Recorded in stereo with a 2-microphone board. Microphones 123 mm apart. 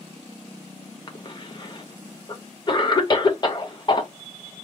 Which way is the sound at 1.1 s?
35° left (ahead or behind).